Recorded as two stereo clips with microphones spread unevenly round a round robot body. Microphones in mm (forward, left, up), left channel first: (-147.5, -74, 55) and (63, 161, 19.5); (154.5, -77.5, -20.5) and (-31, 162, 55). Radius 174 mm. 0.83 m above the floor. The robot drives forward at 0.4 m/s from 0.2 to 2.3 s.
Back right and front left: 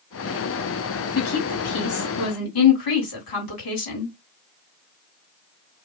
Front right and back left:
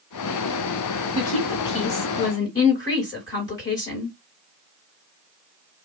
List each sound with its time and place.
1.1 s a woman speaking: 110° right, 1.8 m; by 4.1 s 125° right, 2 m